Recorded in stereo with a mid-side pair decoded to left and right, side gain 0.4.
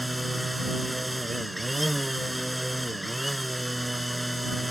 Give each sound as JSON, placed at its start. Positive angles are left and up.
{"t": 0.0, "sound": "a machine running", "azimuth_deg": -10}